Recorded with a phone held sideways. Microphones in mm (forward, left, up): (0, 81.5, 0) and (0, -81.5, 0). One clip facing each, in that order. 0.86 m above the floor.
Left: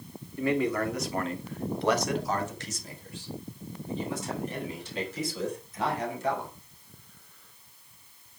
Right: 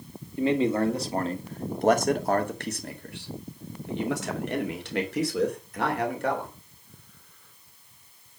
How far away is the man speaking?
About 2.5 m.